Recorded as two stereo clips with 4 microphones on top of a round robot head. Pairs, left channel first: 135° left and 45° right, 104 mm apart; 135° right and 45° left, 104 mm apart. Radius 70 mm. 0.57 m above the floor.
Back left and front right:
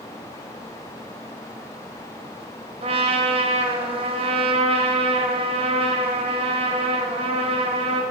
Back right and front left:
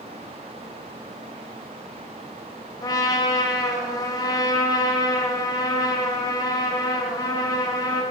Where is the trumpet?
75° right, 1.1 m.